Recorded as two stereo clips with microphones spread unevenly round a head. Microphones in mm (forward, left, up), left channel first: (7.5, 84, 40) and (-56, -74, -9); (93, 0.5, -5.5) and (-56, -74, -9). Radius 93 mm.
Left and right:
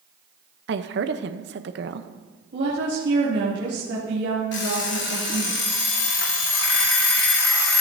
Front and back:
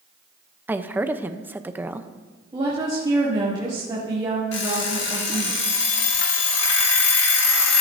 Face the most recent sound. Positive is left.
turn(degrees=50)